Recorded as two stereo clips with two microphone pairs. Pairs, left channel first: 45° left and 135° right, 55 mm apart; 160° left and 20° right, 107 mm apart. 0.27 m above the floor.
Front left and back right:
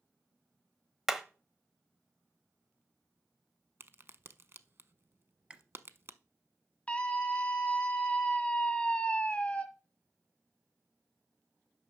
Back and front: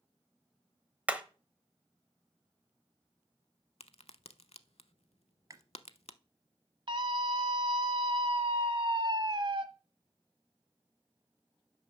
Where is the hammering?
65° right, 0.9 m.